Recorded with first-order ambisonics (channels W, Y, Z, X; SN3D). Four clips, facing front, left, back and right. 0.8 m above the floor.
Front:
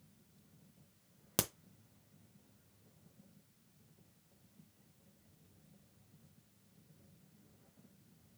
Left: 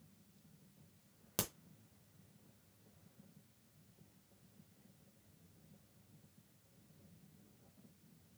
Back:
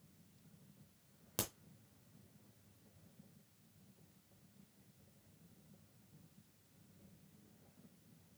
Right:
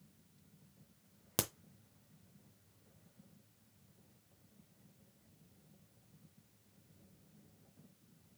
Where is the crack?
30° right, 0.5 m.